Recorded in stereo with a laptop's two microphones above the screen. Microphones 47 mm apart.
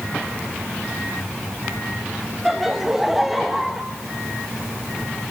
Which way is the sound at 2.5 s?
5° right (ahead or behind).